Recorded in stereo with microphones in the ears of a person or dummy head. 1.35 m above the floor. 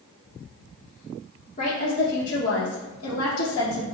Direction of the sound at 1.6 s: 40° left (ahead or behind).